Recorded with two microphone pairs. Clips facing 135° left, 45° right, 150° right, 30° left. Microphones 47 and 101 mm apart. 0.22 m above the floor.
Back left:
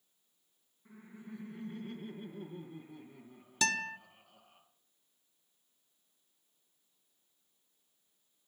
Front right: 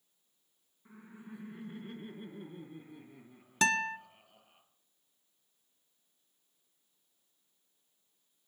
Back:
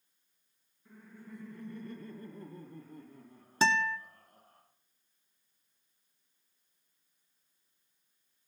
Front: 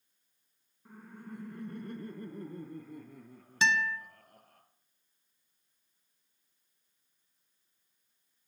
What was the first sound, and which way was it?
Laughter, 15° left.